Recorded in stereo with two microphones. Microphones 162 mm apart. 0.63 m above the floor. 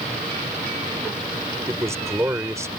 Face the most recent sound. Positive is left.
turn(degrees=-20)  # may be behind; listen again after turning